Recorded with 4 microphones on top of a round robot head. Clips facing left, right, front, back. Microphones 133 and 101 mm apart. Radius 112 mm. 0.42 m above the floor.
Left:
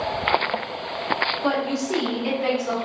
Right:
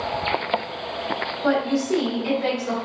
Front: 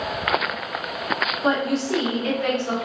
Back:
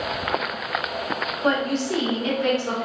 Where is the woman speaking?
45° left, 1.2 m; by 2.8 s 160° left, 1.5 m.